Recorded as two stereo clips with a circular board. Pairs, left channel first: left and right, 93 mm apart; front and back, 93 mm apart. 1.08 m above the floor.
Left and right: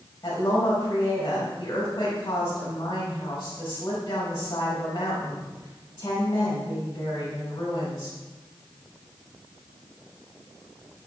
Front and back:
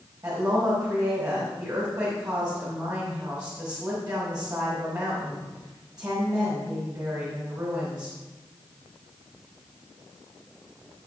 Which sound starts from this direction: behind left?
A woman speaking, at 0.2 s.